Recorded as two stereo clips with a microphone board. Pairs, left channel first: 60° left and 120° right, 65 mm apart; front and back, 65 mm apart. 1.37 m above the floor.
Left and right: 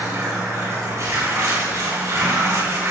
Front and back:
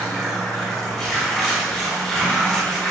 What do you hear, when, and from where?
0.0 s running water: 85° right, 5 m